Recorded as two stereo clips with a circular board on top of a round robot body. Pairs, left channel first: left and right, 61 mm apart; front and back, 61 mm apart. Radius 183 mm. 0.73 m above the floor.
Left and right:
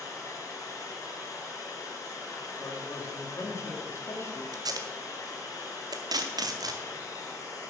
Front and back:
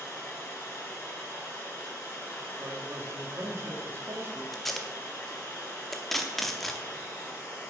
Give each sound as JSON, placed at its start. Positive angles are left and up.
{"t": 0.0, "sound": "running water", "azimuth_deg": 60, "distance_m": 3.5}
{"t": 2.6, "sound": "a man speaking", "azimuth_deg": 135, "distance_m": 1.9}
{"t": 4.5, "sound": "tape being pulled", "azimuth_deg": -90, "distance_m": 0.7}